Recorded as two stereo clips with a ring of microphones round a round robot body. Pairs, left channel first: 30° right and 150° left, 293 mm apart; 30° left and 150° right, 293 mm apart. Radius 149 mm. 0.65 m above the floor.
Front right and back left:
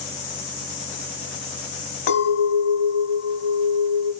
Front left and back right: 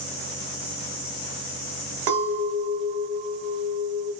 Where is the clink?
85° right, 1.1 m.